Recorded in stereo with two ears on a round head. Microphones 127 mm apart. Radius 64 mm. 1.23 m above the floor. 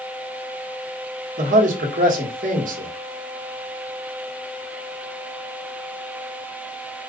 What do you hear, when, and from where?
1.4 s a man speaking: 65° right (ahead or behind), 1.3 m